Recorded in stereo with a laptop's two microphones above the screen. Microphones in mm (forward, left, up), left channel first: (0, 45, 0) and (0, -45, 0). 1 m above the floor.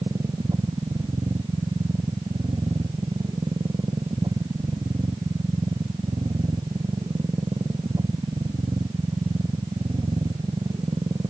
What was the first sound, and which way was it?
A machine running, 50° right (ahead or behind).